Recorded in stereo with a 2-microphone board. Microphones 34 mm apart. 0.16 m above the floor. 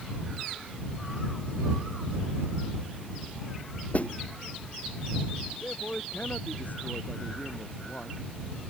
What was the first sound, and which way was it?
A snare drum, 45° left (ahead or behind).